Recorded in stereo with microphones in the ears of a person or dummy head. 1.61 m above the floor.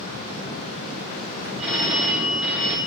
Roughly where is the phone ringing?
Centre.